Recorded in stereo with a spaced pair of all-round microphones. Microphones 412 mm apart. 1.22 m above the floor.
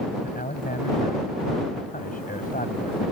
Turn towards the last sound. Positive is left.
turn(degrees=20)  # may be behind; listen again after turning